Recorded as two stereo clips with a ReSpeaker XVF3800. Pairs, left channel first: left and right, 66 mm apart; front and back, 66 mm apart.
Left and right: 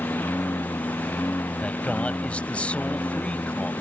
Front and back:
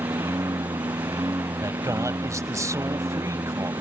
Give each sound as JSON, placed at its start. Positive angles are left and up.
{"t": 0.0, "sound": "a lawn mower", "azimuth_deg": 145}
{"t": 1.6, "sound": "a man speaking", "azimuth_deg": 160}